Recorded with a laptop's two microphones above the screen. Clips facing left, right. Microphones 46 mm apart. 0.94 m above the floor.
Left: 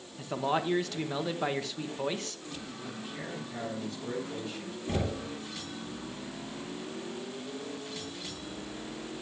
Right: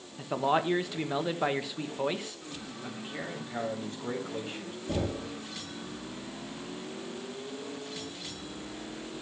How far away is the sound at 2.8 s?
About 4 m.